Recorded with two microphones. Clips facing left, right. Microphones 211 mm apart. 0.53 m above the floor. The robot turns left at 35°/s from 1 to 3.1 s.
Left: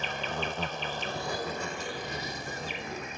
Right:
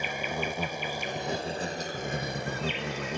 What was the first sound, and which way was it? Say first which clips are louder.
An insect: right 2 dB; 10° right.